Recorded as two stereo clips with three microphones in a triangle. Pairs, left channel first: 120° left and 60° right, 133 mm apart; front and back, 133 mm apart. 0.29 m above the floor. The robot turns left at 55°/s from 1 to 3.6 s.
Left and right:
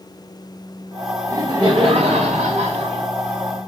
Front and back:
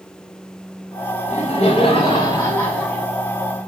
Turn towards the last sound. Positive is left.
turn(degrees=-125)